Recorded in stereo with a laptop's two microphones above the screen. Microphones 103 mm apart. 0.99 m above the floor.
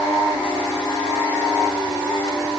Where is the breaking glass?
No breaking glass in this recording.